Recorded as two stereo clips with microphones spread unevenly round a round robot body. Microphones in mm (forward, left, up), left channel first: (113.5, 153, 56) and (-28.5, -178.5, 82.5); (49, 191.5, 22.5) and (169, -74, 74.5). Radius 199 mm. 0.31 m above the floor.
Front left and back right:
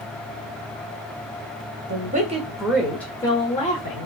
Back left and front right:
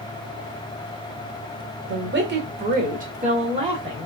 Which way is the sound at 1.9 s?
80° right.